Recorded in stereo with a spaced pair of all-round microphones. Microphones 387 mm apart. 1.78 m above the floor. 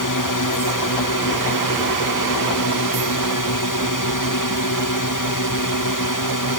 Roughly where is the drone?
Left.